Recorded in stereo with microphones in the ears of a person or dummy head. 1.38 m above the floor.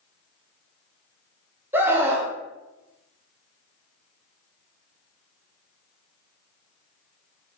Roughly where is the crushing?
No crushing in this recording.